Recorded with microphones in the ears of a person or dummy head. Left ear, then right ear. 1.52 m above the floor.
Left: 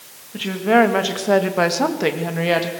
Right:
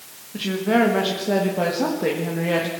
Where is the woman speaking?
15° left (ahead or behind), 2.5 m; by 2.7 s 80° left, 2 m.